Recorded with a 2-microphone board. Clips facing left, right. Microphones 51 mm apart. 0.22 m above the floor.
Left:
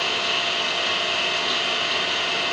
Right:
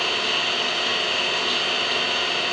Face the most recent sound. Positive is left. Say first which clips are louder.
# even
turn(degrees=-5)  # may be behind; listen again after turning